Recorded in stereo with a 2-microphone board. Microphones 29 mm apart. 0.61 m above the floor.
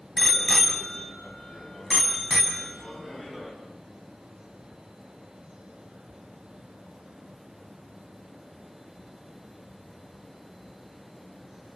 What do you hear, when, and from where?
0.2 s a bicycle bell: 5° left (ahead or behind), 3.5 m; by 3.5 s 20° right (ahead or behind), 4 m